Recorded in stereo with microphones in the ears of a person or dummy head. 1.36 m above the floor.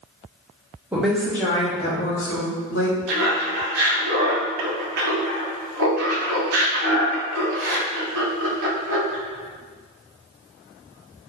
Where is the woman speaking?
5° right (ahead or behind), 0.8 m; by 3.0 s 70° left (ahead or behind), 1.0 m.